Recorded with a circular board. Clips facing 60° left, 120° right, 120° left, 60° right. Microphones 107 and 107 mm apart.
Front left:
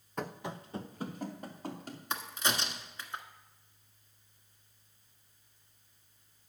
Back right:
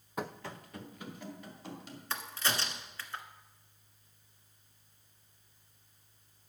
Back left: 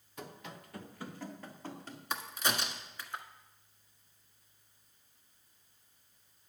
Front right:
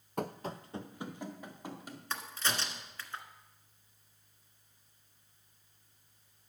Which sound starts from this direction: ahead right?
Running footsteps, at 0.2 s.